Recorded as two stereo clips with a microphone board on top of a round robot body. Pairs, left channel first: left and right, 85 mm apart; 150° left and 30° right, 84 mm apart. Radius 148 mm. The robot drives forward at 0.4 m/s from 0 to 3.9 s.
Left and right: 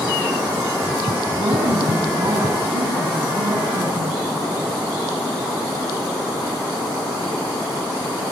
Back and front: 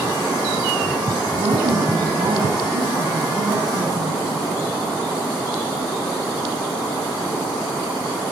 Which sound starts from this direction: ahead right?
A woman speaking, at 1.3 s.